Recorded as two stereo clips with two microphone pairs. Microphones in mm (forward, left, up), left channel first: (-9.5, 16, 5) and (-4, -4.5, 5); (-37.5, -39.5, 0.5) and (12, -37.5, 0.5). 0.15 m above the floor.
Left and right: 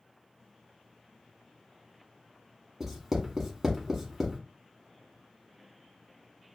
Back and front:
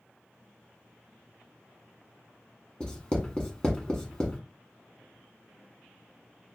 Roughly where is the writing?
Behind right.